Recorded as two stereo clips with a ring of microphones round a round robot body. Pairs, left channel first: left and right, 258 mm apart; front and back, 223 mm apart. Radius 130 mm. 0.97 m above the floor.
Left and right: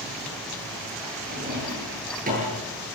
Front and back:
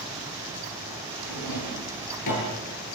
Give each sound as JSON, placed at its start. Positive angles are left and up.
{"t": 1.3, "sound": "a drawer", "azimuth_deg": -30, "distance_m": 9.5}